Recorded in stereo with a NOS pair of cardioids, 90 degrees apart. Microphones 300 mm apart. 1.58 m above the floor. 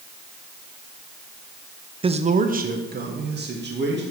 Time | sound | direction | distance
2.0 | a man speaking | 15° right | 0.6 m